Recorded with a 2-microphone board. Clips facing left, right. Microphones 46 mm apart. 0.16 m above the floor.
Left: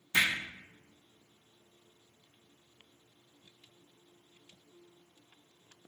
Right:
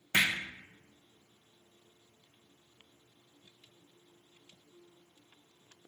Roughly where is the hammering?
Right.